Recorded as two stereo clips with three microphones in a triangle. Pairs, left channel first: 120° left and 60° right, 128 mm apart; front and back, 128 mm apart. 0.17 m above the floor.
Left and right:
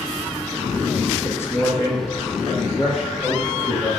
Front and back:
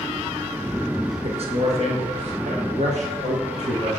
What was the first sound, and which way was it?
A man speaking, 170° right.